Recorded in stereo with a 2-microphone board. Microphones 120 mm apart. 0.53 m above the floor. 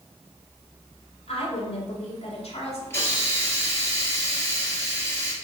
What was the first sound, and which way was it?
A woman speaking, 60° left (ahead or behind).